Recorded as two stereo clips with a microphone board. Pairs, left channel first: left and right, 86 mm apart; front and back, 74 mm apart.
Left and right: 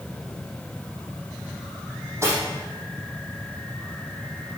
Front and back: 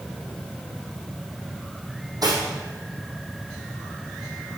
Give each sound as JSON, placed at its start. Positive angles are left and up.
{"t": 2.2, "sound": "cutlery clinking", "azimuth_deg": -145, "distance_m": 4.5}